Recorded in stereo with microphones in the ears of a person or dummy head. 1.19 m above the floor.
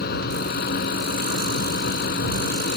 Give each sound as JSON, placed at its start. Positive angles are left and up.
{"t": 0.0, "sound": "a fan", "side_deg": 60}